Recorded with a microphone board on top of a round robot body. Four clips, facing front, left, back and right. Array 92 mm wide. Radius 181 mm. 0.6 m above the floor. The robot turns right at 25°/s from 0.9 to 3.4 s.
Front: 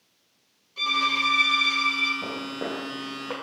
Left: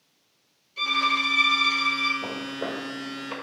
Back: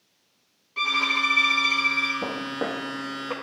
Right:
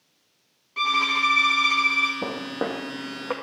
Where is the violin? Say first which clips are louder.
Right 2 dB, even; 120° right, 1.9 m; by 2.1 s 90° right, 1.9 m.